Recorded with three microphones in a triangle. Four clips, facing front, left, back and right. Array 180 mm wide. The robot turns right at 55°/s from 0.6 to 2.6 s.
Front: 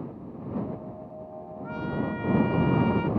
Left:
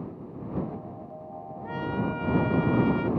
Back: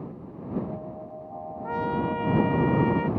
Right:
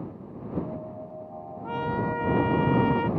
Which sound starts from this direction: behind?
A trumpet, at 1.6 s.